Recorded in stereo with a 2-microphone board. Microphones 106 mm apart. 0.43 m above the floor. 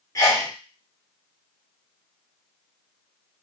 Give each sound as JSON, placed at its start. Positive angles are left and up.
{"t": 0.1, "sound": "a sneeze", "side_deg": 30, "distance_m": 1.0}